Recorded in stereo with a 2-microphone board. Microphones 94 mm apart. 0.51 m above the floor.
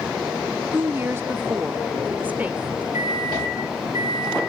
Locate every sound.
0.7 s a woman speaking: 25° right (ahead or behind), 0.7 m; by 2.8 s 15° right (ahead or behind), 1.3 m
2.9 s a microwave: 35° right (ahead or behind), 10 m